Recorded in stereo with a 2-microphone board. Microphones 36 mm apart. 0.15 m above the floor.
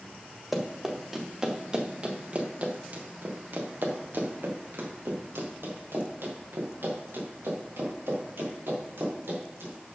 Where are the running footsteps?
5° right (ahead or behind), 2.5 m; by 9.7 s 85° right, 6.5 m.